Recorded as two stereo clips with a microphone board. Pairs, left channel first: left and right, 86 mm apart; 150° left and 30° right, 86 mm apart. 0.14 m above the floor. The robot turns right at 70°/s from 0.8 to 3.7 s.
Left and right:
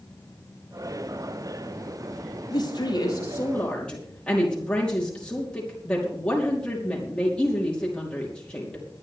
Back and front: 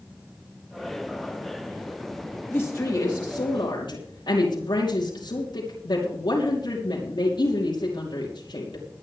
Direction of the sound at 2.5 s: 85° left.